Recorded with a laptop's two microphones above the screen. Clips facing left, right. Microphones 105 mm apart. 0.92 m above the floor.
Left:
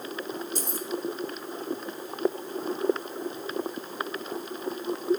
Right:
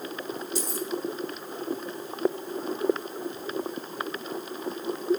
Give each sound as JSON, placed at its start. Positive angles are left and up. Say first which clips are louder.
{"t": 0.6, "sound": "keys jangling", "louder": "right 3 dB", "side_deg": 50, "distance_m": 1.4}